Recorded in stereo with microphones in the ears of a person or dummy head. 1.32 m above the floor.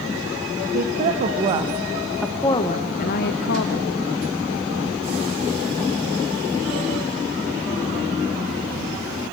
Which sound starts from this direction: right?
A woman speaking, at 0.7 s.